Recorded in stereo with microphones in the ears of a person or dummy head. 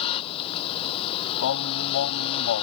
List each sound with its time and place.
0.0 s a vehicle: 30° left (ahead or behind)
1.4 s singing: 70° left (ahead or behind)